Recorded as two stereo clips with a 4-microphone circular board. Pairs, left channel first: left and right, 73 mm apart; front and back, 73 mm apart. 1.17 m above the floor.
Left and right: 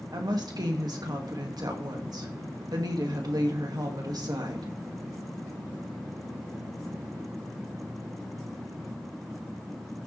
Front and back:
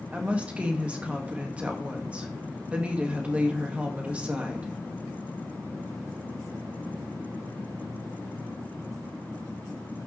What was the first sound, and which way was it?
A woman speaking, 110° right.